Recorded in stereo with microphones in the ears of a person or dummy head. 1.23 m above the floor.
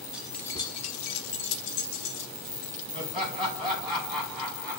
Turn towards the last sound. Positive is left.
turn(degrees=5)  # may be behind; listen again after turning